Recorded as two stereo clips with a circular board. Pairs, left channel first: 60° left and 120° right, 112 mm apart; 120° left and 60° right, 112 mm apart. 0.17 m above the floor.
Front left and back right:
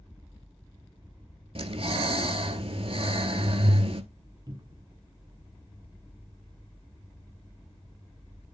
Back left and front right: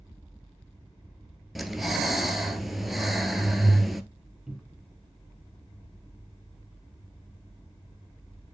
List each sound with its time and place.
1.6 s breathing: 150° right, 0.8 m
4.5 s a cupboard door: 140° right, 1.1 m